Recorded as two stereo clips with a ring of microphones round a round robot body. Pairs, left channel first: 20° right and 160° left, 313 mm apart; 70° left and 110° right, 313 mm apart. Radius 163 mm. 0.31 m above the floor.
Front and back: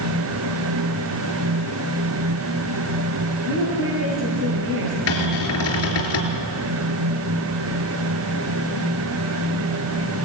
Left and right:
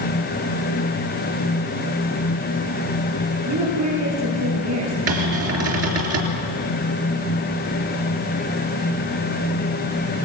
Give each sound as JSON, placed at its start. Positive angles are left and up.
{"t": 3.5, "sound": "a woman speaking", "azimuth_deg": -150, "distance_m": 8.5}
{"t": 5.1, "sound": "a cupboard door", "azimuth_deg": -65, "distance_m": 4.0}